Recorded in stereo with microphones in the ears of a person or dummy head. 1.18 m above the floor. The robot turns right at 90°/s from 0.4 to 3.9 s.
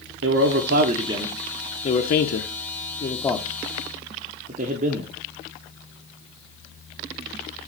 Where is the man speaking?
55° right (ahead or behind), 0.7 m; by 5.1 s 40° right (ahead or behind), 0.7 m.